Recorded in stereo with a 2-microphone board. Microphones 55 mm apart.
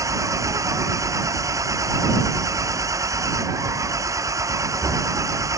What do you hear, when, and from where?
0.0 s an engine running: 65° right (ahead or behind)